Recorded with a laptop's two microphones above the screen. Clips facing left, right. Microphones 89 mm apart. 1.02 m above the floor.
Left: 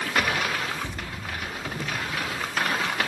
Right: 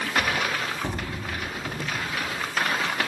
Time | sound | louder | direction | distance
0.8 | an explosion | right 4 dB | 40° right (ahead or behind) | 1.2 m